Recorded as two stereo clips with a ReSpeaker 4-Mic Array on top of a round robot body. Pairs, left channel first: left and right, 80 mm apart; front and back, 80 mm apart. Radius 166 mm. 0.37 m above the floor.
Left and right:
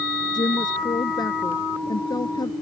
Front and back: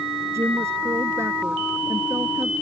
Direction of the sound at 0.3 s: 120° left.